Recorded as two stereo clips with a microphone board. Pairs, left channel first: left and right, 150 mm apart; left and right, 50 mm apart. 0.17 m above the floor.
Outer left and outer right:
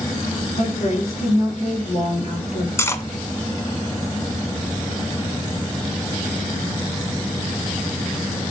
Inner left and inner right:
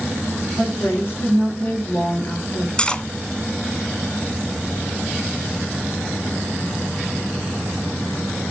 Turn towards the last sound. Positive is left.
turn(degrees=20)  # may be behind; listen again after turning